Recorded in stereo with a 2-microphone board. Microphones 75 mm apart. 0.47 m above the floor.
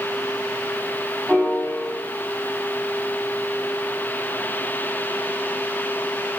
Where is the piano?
5° right (ahead or behind), 1.4 m.